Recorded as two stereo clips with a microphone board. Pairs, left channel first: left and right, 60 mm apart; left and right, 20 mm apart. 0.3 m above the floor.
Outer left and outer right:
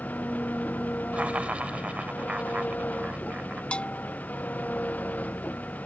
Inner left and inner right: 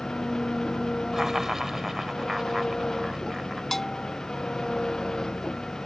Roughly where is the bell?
Centre.